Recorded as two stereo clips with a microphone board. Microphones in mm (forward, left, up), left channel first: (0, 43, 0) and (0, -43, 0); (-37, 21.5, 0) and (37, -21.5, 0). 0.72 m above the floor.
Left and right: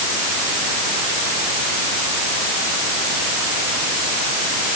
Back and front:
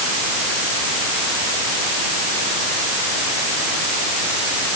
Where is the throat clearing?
No throat clearing in this recording.